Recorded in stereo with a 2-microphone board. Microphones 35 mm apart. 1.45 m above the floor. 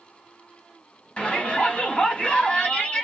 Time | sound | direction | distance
1.2 | a shout | 30° left (ahead or behind) | 3 m